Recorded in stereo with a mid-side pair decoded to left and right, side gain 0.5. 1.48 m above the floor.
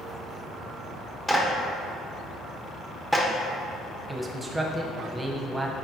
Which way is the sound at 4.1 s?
20° right.